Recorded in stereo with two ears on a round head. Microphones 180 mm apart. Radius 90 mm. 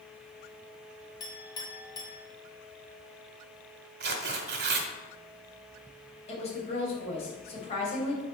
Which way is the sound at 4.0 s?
50° right (ahead or behind).